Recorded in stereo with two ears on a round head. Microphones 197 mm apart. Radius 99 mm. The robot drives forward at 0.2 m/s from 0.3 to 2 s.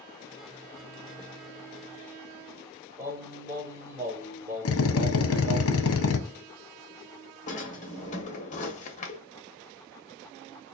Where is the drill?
70° left (ahead or behind), 0.6 m.